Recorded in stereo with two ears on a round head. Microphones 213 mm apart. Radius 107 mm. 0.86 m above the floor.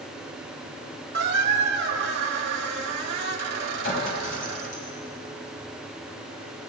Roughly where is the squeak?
Right.